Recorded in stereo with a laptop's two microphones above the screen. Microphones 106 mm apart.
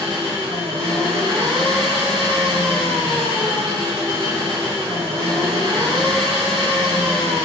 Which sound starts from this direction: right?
An engine running, at 0.0 s.